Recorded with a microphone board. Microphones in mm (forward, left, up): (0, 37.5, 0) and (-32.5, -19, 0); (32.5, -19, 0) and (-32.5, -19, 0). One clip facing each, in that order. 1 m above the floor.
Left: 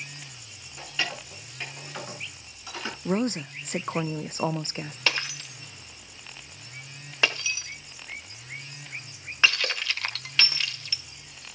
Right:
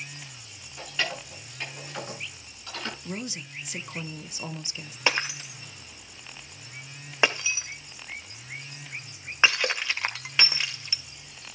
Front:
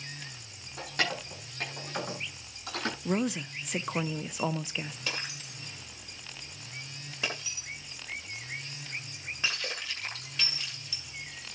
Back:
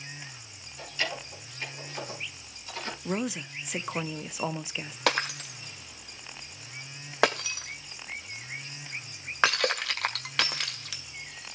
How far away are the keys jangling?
About 9 m.